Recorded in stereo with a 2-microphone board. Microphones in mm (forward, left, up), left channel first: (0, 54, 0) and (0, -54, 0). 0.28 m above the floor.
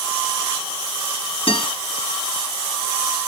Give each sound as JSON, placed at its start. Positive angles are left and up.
{"t": 1.5, "sound": "a guitar", "side_deg": 60, "distance_m": 5.0}